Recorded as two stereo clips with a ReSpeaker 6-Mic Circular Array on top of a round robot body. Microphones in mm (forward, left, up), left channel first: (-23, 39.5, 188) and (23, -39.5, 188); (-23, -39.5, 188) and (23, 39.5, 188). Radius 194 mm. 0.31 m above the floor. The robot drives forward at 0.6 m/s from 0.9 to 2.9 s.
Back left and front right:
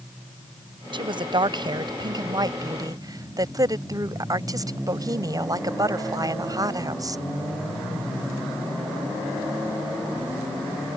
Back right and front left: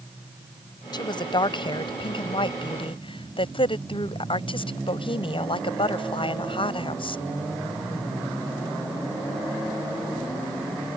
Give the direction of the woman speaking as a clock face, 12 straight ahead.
3 o'clock.